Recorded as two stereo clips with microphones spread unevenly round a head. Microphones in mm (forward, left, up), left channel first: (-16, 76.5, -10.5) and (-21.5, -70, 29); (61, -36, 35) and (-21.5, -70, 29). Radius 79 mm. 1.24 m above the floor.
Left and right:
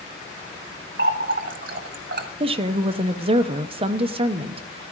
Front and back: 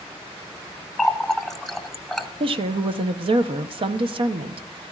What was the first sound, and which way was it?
A running tap, 70° right.